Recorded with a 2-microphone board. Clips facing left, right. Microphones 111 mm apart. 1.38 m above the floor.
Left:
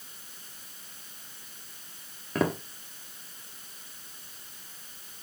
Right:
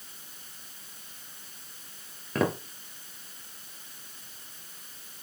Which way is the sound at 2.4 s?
Centre (ahead or behind).